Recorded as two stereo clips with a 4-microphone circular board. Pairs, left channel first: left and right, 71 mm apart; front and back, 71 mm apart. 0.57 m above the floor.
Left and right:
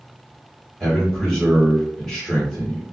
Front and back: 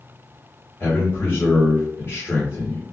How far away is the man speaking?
About 1.3 m.